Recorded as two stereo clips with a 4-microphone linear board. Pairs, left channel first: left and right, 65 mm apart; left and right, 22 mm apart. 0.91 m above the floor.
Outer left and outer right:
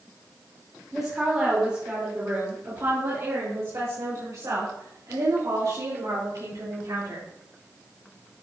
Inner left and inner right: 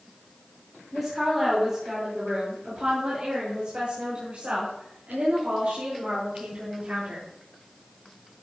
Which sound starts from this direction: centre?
A woman speaking, at 0.9 s.